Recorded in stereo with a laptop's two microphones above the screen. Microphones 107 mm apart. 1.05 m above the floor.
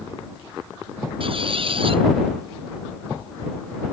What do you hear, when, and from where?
1.2 s a squeak: 60° right (ahead or behind)